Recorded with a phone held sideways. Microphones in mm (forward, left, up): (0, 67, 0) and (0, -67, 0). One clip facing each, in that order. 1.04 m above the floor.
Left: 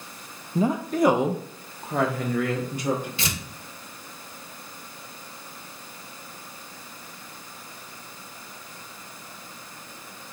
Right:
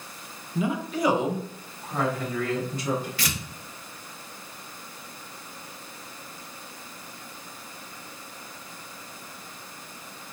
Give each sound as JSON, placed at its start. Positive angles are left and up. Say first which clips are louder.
{"t": 0.6, "sound": "a woman speaking", "louder": "left 5 dB", "side_deg": 35, "distance_m": 0.5}
{"t": 3.2, "sound": "tearing paper", "louder": "left 1 dB", "side_deg": 25, "distance_m": 0.8}